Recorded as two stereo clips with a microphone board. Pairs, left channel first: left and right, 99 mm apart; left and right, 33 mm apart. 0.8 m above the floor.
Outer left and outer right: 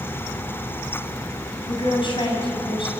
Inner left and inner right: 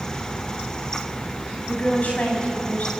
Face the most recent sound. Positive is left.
turn(degrees=55)  # may be behind; listen again after turning